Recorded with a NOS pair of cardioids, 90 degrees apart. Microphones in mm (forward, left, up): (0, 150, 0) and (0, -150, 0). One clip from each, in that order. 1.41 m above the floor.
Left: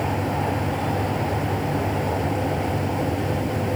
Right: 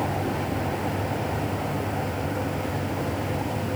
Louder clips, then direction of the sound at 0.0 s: Left 3 dB; 40° left.